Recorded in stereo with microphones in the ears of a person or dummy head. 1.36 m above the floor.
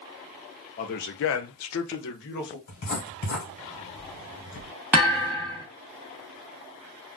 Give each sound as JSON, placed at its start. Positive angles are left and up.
{"t": 0.8, "sound": "a man speaking", "side_deg": 40, "distance_m": 0.5}
{"t": 2.7, "sound": "writing", "side_deg": 50, "distance_m": 1.2}
{"t": 4.9, "sound": "a thud", "side_deg": -5, "distance_m": 0.7}